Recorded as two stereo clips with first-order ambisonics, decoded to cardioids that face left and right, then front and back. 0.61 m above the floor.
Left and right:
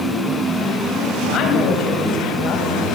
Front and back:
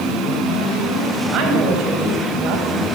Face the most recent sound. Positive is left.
turn(degrees=140)